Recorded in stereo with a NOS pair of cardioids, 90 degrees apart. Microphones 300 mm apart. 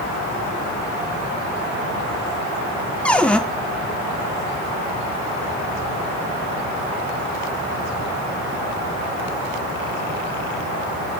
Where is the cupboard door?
5° left, 1.4 m.